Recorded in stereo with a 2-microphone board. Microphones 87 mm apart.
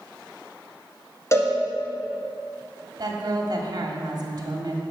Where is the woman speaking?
50° right (ahead or behind), 1.4 m.